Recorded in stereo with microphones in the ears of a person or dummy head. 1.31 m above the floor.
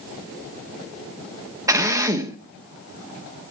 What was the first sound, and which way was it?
A drill, 20° right (ahead or behind).